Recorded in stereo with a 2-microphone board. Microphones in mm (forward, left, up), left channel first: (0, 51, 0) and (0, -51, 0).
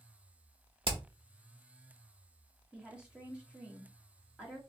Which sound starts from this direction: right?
Hammering, at 0.8 s.